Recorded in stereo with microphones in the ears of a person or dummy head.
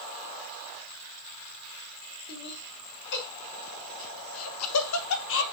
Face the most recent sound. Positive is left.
turn(degrees=65)  # may be behind; listen again after turning